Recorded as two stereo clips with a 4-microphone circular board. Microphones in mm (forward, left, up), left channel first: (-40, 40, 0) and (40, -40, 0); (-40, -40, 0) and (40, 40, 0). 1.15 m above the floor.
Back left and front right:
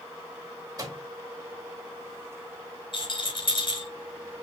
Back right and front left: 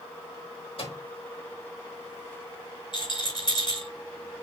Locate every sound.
0.8 s a microwave: 100° right, 3.5 m
2.9 s a rattle: 175° left, 5.5 m